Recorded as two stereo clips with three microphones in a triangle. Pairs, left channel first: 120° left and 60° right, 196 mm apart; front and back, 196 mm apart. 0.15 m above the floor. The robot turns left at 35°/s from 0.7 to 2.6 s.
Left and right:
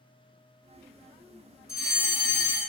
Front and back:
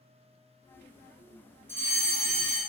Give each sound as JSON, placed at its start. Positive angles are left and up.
{"t": 1.7, "sound": "a fire alarm", "azimuth_deg": 135, "distance_m": 2.0}